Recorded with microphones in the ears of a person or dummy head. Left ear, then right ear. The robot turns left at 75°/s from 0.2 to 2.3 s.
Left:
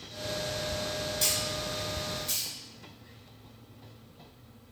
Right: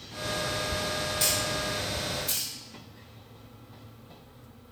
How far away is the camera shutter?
About 0.7 m.